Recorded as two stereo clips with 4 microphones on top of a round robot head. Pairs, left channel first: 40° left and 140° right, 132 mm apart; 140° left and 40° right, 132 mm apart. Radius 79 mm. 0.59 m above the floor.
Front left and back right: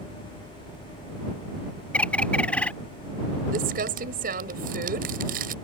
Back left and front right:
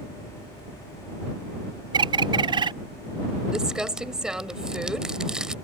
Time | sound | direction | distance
1.9 | a bird | 35° right | ?
3.5 | crumpling | 125° right | ?